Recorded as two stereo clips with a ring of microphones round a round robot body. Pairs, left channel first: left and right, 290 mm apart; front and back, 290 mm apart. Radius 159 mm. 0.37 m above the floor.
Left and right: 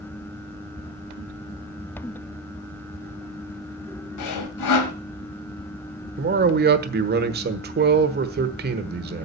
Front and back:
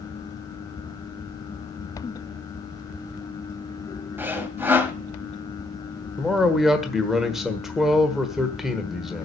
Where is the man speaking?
95° right, 1.3 m.